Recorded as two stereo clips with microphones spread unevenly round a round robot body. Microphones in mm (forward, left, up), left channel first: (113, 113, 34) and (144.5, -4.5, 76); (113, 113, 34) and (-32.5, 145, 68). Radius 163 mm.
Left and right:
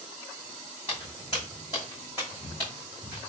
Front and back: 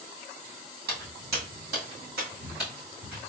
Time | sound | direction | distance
0.9 | footsteps | 165° right | 1.9 m